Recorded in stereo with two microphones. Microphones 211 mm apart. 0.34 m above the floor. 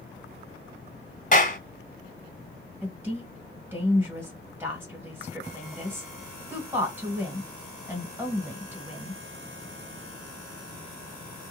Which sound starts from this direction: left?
A clap, at 1.3 s.